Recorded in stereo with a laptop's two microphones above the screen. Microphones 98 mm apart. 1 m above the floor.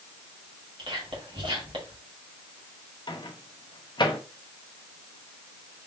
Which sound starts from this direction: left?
A microwave, at 3.1 s.